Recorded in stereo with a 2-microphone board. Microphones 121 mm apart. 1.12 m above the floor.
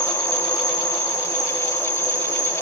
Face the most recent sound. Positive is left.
turn(degrees=85)